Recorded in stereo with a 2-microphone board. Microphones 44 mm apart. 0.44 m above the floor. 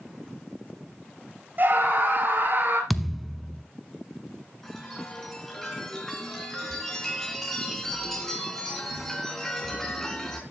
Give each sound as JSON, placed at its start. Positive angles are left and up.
{"t": 1.6, "sound": "a scream", "side_deg": -50, "distance_m": 7.0}
{"t": 2.9, "sound": "a thud", "side_deg": 0, "distance_m": 0.9}
{"t": 4.6, "sound": "a chime", "side_deg": 5, "distance_m": 3.5}